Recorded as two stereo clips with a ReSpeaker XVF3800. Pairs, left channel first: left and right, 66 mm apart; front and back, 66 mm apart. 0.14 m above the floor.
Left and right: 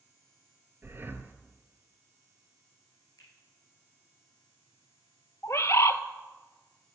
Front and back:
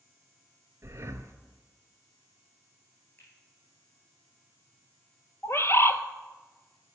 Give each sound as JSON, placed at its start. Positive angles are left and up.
{"t": 0.8, "sound": "breathing", "azimuth_deg": -140, "distance_m": 0.8}
{"t": 3.2, "sound": "a finger snap", "azimuth_deg": 55, "distance_m": 6.0}
{"t": 5.4, "sound": "a bird", "azimuth_deg": 45, "distance_m": 0.5}